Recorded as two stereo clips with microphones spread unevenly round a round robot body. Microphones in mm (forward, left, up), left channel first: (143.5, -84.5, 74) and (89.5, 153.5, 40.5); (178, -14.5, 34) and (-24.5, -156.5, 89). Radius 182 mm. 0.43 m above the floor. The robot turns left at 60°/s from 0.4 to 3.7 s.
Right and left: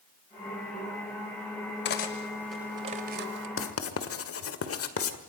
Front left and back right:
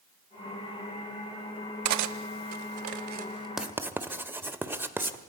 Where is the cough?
No cough in this recording.